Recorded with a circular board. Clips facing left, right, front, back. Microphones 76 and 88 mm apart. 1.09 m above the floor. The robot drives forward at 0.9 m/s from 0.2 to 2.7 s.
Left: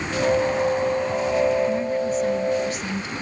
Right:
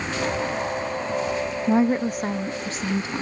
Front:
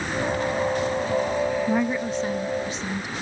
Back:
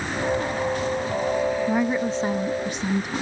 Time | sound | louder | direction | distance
1.7 | a woman speaking | right 2 dB, back 1 dB | 90° right | ?